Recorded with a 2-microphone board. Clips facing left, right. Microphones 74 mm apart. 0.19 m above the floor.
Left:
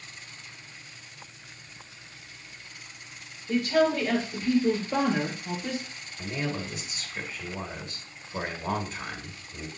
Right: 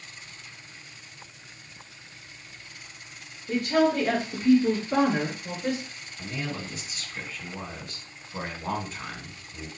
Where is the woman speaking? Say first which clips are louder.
Right 1 dB; 60° right (ahead or behind), 3 m; by 5.8 s 50° right (ahead or behind), 3 m.